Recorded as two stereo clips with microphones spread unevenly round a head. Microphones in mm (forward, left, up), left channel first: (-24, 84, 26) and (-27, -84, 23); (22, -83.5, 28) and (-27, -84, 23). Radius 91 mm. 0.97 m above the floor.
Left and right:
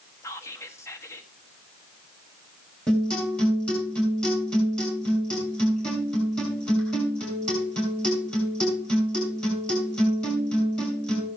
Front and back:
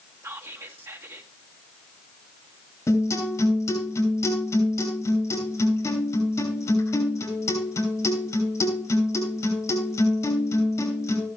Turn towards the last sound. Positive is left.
turn(degrees=5)